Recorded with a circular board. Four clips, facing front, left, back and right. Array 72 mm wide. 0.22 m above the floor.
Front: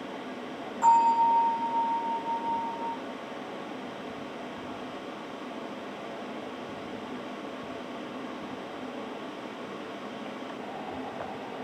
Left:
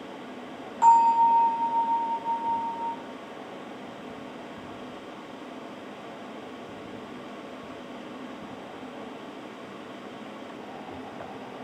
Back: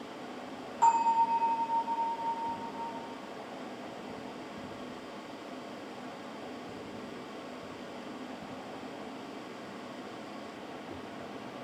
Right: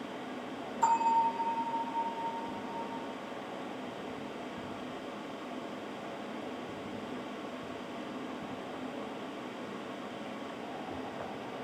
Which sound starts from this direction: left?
A bell, at 0.8 s.